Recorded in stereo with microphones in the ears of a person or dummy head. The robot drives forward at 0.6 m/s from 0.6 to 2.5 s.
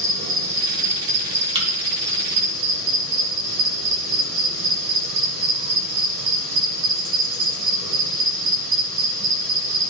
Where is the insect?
50° right (ahead or behind), 3.5 m; by 9.9 s 65° right (ahead or behind), 3 m.